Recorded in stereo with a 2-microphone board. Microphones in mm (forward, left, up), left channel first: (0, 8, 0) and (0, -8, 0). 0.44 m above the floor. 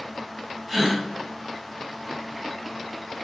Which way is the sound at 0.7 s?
35° right (ahead or behind).